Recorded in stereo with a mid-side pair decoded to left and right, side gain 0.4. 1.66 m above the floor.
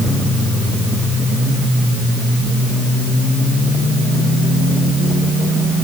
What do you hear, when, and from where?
Only background noise.